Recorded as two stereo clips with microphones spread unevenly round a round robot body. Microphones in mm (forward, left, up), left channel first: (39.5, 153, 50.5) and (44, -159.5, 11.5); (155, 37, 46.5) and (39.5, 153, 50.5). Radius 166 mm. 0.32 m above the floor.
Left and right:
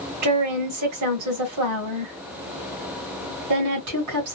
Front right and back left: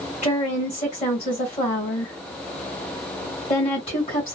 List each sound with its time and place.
0.2 s a woman speaking: 100° right, 2.5 m